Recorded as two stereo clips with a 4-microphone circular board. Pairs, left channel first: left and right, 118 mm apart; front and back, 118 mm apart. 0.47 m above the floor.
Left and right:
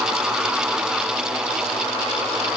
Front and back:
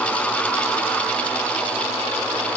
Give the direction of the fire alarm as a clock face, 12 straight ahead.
No fire alarm in this recording.